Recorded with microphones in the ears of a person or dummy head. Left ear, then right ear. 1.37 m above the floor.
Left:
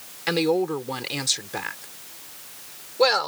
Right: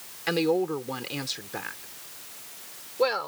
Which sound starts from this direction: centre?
A woman speaking, at 0.3 s.